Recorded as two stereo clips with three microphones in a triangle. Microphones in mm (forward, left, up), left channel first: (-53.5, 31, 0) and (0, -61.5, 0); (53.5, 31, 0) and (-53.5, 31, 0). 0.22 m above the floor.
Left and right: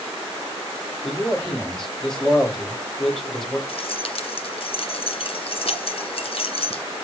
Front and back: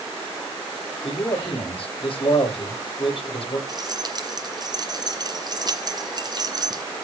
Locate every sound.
1.0 s a man speaking: 35° left, 8.5 m
3.7 s keys jangling: 135° left, 2 m